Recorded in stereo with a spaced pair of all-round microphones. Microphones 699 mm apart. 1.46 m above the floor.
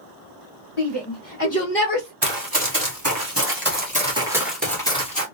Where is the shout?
40° left (ahead or behind), 1.2 m; by 2.1 s 10° right (ahead or behind), 1.2 m.